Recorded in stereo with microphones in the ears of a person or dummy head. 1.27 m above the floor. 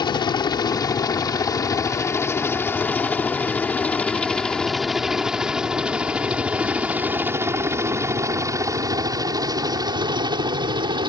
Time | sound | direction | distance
0.0 | a helicopter | 20° left (ahead or behind) | ?